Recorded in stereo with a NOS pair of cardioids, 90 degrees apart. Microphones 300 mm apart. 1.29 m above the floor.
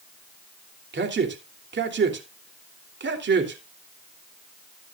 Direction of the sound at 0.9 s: 35° right.